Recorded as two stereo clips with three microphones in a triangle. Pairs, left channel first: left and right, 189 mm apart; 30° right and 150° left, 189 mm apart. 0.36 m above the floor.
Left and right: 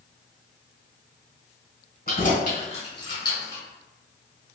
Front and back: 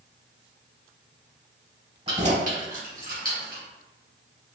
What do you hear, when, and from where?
2.1 s keys jangling: 110° left, 1.3 m; by 3.6 s 160° left, 1.3 m